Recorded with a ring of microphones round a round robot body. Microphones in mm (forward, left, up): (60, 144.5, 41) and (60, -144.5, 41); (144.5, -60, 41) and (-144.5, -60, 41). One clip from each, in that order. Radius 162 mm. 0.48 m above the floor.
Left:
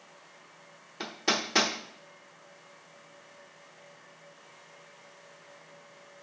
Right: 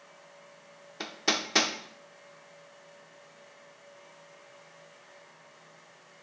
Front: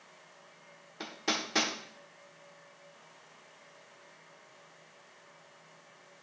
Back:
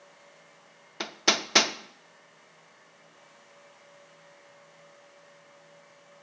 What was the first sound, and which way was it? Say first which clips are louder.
Hammering: even, back 8 dB; 165° right.